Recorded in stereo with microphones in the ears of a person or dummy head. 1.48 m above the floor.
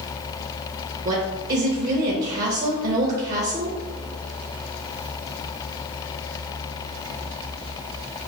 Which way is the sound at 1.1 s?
45° right (ahead or behind).